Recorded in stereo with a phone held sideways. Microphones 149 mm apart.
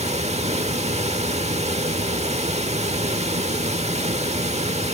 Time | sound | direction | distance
0.0 | running water | 45° right (ahead or behind) | 1.1 m